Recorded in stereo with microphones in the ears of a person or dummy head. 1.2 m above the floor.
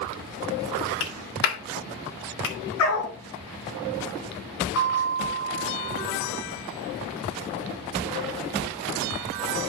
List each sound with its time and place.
1.0 s a clap: 75° left (ahead or behind), 2.5 m
2.8 s a dog barking: 70° left (ahead or behind), 6 m
4.8 s a bell: 80° left, 5.5 m